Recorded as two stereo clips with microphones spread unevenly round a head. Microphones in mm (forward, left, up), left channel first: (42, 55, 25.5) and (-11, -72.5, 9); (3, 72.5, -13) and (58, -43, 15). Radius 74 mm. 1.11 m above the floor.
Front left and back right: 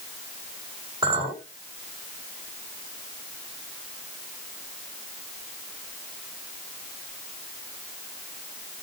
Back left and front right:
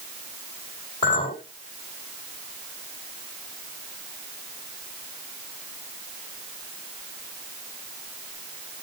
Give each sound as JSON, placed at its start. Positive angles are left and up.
{"t": 1.0, "sound": "a clink", "azimuth_deg": 180, "distance_m": 3.0}